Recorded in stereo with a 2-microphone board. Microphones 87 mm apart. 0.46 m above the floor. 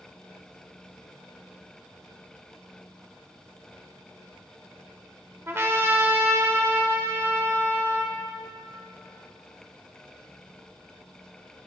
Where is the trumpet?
30° right (ahead or behind), 1.0 m.